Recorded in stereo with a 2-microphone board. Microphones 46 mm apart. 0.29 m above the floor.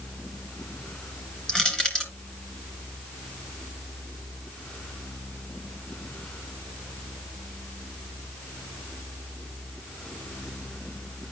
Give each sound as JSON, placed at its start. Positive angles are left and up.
{"t": 1.5, "sound": "crushing", "side_deg": 15, "distance_m": 2.5}